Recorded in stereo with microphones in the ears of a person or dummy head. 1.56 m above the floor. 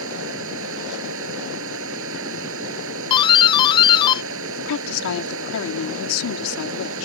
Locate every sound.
0.0 s running water: 80° right
3.1 s a doorbell: 15° left (ahead or behind)
4.6 s a woman speaking: 80° left